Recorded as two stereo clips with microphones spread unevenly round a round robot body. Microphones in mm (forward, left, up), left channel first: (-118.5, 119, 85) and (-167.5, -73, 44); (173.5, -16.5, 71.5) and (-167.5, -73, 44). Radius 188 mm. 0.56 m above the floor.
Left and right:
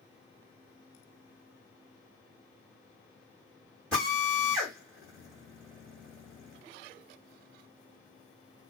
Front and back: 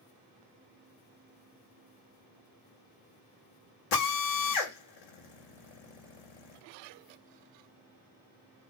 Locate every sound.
3.9 s a drill: 10° right, 1.0 m